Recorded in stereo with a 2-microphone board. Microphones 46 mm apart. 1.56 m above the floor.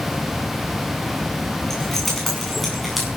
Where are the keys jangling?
5° left (ahead or behind), 9.5 m; by 3.1 s centre (ahead or behind), 8.5 m.